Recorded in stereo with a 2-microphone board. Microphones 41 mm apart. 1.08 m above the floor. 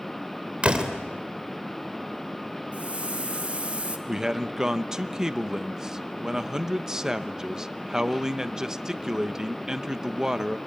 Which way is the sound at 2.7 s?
30° right (ahead or behind).